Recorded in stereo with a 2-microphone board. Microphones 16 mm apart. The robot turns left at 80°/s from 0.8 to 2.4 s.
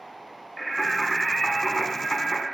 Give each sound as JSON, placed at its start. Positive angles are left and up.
{"t": 0.6, "sound": "singing", "azimuth_deg": 180, "distance_m": 0.9}